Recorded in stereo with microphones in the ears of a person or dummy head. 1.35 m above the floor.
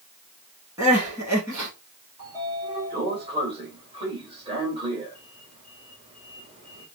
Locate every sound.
0.8 s crying: 20° right (ahead or behind), 2.5 m
2.2 s a sliding door: 30° right (ahead or behind), 1.8 m